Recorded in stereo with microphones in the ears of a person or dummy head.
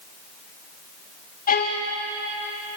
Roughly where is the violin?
Left.